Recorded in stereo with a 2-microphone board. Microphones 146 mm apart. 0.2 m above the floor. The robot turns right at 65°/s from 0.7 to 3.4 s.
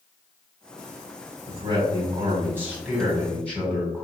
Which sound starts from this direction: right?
A man speaking, at 1.5 s.